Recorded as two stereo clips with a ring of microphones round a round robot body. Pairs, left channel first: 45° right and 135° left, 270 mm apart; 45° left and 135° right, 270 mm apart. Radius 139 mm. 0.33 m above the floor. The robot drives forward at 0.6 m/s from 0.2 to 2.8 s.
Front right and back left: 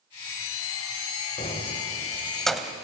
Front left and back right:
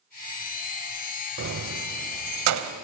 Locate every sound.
1.4 s keys jangling: 105° right, 1.3 m; by 2.7 s 140° right, 1.7 m